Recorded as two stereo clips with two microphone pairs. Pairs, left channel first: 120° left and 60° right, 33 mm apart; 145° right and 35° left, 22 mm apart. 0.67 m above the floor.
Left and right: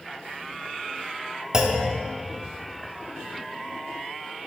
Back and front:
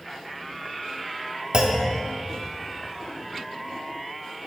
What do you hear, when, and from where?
1.5 s a clunk: 5° left, 1.4 m